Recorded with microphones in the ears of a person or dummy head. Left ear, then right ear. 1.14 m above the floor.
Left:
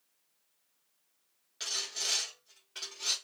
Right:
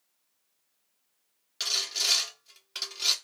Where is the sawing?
40° right (ahead or behind), 1.0 m.